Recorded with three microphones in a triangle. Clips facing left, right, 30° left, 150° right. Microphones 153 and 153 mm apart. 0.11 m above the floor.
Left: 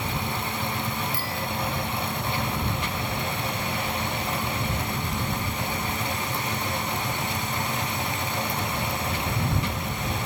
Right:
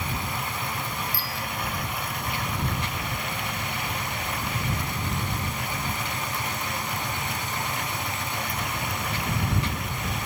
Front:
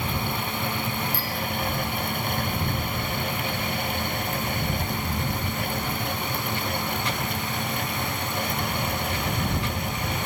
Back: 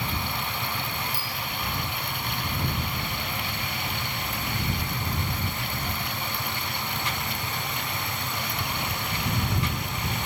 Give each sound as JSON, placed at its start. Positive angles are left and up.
{"t": 1.1, "sound": "a bicycle bell", "azimuth_deg": 130}